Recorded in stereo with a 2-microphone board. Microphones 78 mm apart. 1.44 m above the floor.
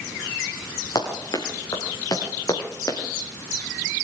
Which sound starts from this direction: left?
Running footsteps, at 0.9 s.